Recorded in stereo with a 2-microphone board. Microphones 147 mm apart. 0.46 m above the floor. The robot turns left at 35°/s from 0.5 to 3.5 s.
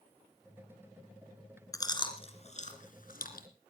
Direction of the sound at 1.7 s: 20° left (ahead or behind).